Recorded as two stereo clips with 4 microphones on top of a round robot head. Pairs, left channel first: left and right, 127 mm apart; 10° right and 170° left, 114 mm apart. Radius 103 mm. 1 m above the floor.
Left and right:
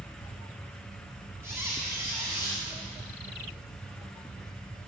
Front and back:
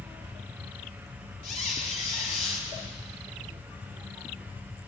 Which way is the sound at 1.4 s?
15° right.